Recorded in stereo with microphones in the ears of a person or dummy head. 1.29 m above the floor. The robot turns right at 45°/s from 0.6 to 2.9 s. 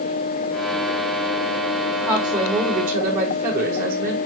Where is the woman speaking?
170° right, 5 m; by 4.2 s 130° right, 5 m.